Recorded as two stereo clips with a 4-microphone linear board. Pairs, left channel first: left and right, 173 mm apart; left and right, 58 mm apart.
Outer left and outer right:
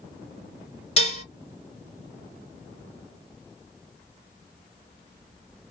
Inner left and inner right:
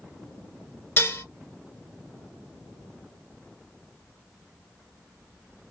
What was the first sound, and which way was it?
Dishes clattering, 35° left (ahead or behind).